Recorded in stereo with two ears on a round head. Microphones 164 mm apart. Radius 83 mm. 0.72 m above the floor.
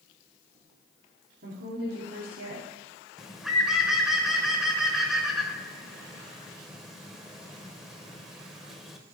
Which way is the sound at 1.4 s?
55° right (ahead or behind).